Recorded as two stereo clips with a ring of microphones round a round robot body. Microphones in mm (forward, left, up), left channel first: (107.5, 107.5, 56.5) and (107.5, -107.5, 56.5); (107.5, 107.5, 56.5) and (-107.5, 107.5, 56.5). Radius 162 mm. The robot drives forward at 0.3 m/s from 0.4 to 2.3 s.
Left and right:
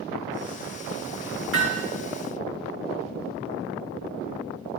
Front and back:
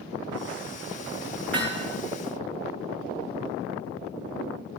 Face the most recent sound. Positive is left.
turn(degrees=-130)